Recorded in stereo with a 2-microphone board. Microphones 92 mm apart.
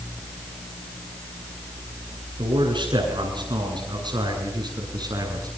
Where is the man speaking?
60° right (ahead or behind), 8.5 m; by 5.5 s 45° right (ahead or behind), 7.5 m.